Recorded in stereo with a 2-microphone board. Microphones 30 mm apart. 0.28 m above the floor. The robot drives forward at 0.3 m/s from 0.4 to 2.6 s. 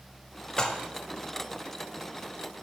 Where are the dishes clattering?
25° left (ahead or behind), 0.6 m.